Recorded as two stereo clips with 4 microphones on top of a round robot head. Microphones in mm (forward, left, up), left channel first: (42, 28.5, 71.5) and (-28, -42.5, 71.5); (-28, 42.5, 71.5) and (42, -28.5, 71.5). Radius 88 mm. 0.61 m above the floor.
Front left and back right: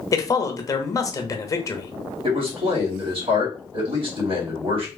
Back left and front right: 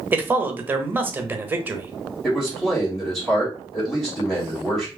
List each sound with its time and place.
0.1 s a man speaking: 15° left, 0.9 m
2.2 s a man speaking: 140° right, 2 m